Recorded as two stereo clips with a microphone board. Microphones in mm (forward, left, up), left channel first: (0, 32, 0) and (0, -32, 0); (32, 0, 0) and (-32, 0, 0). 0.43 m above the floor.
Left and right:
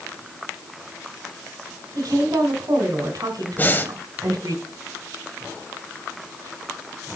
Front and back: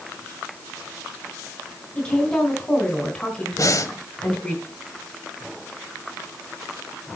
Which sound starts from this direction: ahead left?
Breathing, at 3.6 s.